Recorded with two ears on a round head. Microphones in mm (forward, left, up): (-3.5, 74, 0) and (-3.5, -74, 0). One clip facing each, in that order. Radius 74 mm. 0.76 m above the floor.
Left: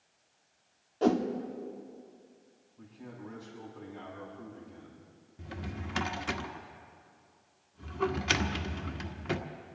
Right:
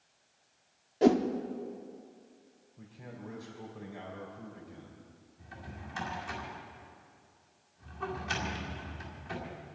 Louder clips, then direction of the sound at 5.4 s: Left 7 dB; 75° left (ahead or behind).